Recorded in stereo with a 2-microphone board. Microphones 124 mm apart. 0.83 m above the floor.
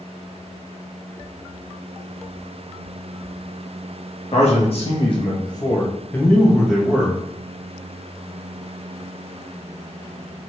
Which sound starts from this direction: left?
A man speaking, at 4.3 s.